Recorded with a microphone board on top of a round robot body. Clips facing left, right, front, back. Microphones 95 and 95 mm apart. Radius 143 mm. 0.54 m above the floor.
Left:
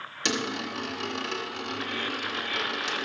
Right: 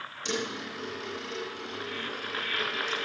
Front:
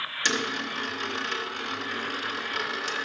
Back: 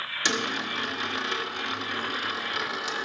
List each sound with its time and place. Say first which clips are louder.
0.2 s a dropped coin: left 3 dB, even; 105° left, 1.4 m